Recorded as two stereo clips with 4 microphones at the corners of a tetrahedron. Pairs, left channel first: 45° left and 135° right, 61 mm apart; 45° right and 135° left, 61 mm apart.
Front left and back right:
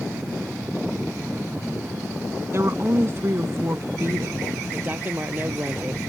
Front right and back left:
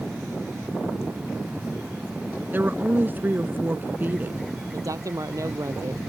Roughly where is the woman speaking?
Behind.